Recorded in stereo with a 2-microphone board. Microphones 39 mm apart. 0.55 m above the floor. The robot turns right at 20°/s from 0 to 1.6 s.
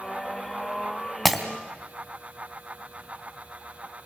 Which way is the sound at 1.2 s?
5° right (ahead or behind).